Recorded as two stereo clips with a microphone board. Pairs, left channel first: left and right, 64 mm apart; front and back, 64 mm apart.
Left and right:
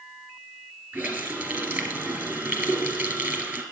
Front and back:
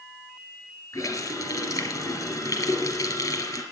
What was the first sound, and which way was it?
A running tap, 30° right.